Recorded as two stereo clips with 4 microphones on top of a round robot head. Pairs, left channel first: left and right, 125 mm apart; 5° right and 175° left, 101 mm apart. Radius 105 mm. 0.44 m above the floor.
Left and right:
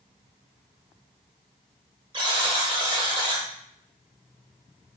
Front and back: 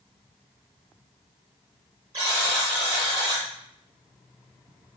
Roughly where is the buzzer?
Behind right.